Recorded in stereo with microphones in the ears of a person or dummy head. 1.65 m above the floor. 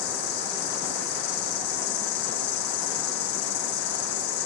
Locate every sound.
0.0 s an insect: 60° left (ahead or behind), 3.5 m